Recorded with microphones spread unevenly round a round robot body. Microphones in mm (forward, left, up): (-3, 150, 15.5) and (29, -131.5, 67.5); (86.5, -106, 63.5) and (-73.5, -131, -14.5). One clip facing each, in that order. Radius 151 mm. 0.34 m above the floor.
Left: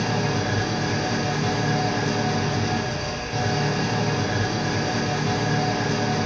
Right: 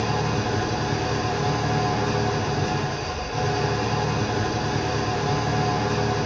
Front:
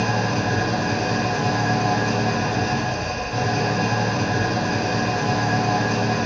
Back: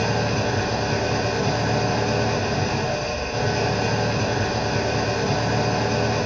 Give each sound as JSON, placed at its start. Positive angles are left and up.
{"t": 0.0, "sound": "an engine running", "azimuth_deg": 50, "distance_m": 1.4}